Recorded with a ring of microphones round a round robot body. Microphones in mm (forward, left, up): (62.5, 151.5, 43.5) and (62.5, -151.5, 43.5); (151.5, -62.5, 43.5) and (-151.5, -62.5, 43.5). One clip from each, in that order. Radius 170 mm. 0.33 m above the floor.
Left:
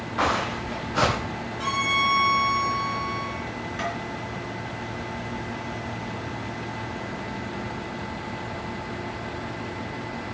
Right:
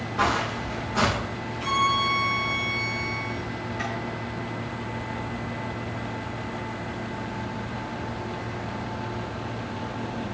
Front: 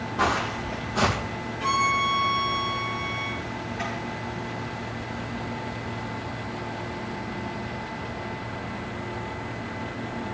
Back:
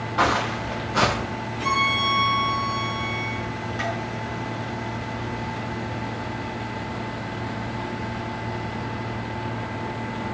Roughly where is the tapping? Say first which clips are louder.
Left 2 dB, back 4 dB; behind left.